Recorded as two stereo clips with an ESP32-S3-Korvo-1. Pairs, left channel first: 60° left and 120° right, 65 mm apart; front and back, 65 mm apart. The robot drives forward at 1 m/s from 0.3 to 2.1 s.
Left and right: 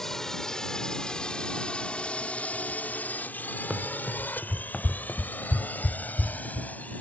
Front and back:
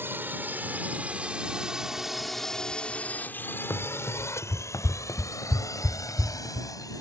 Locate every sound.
0.0 s a drone: 140° left; by 7.0 s 5° right
3.7 s running footsteps: 45° right; by 6.9 s 75° left